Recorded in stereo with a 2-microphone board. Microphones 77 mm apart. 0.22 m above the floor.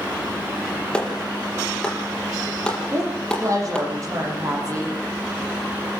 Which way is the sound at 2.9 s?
45° right (ahead or behind).